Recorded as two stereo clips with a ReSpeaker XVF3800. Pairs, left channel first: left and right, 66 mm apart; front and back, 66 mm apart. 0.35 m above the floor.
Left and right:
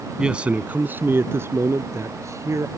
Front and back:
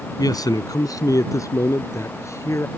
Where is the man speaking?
10° right; by 2.7 s 45° right.